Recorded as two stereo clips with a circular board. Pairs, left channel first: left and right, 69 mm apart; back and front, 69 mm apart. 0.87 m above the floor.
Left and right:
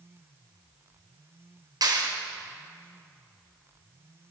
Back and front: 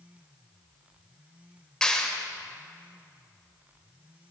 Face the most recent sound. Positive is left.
turn(degrees=-100)